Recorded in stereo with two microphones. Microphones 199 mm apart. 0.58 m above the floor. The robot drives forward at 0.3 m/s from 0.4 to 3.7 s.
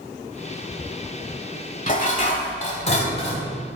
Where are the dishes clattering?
40° left (ahead or behind), 1.5 m; by 3.5 s 30° left (ahead or behind), 1.9 m.